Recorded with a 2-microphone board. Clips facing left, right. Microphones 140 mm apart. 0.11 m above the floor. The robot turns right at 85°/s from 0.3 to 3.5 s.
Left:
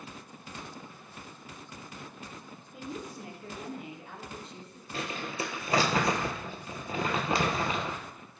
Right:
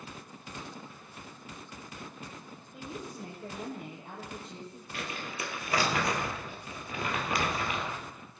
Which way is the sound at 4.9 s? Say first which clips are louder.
Left 4 dB; 30° left (ahead or behind).